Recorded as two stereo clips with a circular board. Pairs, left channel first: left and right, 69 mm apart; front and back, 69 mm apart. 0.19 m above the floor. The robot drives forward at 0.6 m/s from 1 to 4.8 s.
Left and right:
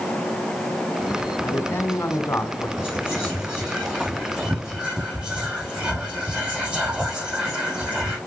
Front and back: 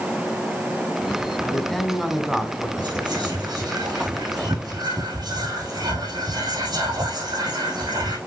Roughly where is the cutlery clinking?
I don't hear cutlery clinking.